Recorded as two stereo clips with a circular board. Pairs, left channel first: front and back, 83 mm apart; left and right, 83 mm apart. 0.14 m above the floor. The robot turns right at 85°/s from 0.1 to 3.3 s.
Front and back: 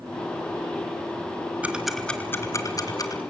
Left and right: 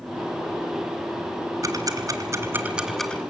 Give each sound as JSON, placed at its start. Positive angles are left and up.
{"t": 1.6, "sound": "ticking", "azimuth_deg": -110, "distance_m": 2.0}